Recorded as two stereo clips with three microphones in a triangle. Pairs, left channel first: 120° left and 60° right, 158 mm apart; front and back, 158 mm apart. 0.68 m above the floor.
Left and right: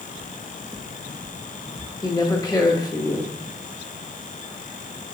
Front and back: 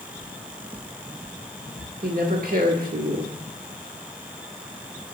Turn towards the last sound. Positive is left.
turn(degrees=-175)